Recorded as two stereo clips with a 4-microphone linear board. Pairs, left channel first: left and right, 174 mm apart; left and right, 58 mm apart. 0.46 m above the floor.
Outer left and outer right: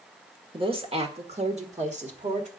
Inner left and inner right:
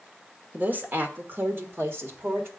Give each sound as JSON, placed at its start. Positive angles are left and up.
{"t": 0.5, "sound": "a woman speaking", "side_deg": -30, "distance_m": 1.5}